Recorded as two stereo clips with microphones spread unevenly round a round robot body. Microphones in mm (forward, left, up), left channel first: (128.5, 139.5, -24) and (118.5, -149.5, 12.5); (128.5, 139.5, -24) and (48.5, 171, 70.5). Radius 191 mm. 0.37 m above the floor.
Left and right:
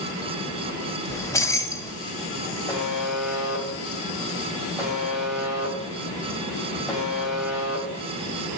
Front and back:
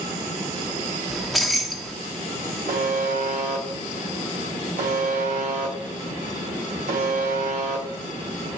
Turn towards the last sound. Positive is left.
turn(degrees=175)